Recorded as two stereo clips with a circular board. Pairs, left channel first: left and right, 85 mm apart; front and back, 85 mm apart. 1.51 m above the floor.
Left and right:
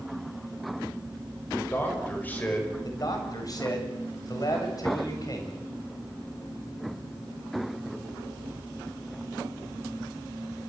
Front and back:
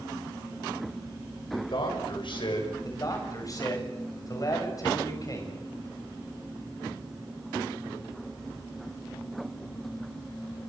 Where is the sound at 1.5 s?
25° left, 8 m; by 2.7 s 15° left, 7.5 m.